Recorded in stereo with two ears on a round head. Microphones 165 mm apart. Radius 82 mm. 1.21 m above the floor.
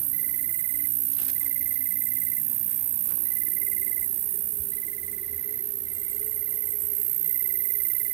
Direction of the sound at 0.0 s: 70° right (ahead or behind).